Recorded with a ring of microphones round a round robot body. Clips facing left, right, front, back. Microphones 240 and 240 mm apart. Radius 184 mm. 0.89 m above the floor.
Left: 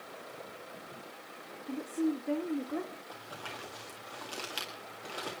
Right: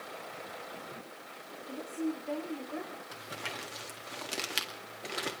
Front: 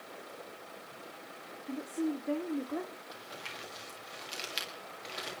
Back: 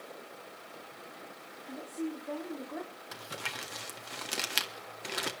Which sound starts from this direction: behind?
Crumpling, at 3.1 s.